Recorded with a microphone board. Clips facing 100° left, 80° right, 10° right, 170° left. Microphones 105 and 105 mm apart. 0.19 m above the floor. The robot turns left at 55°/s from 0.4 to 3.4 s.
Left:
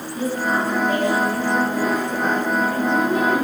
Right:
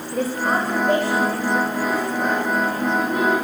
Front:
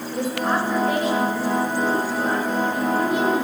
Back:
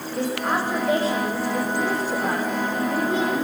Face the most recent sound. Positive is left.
turn(degrees=95)